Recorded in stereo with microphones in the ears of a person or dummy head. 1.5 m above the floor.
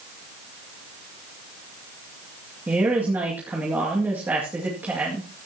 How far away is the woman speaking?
About 2.5 m.